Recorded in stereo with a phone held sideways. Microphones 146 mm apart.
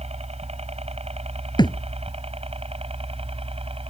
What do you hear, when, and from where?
0.0 s a helicopter: 45° right (ahead or behind); by 3.9 s 40° right (ahead or behind)
1.6 s a thud: 30° left (ahead or behind)